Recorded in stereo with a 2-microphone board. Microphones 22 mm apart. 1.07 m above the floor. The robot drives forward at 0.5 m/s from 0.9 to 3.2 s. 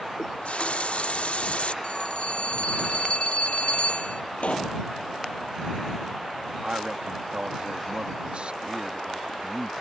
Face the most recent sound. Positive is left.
turn(degrees=-60)  # may be behind; listen again after turning